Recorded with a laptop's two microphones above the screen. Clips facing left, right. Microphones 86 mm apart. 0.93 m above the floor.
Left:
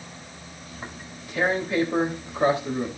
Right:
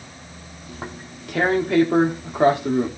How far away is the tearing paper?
About 2.5 m.